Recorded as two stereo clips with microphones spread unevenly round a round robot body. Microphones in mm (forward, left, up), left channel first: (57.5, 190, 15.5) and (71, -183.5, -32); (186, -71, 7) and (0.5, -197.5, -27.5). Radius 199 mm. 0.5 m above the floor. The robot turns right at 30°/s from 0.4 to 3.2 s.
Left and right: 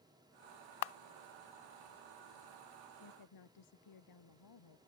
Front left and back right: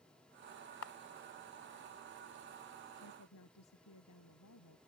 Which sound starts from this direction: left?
A camera shutter, at 0.8 s.